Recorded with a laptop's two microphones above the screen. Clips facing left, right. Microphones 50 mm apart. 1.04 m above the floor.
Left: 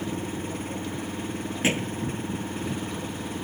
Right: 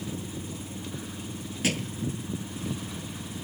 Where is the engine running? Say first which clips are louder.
Left 5 dB; 50° left (ahead or behind).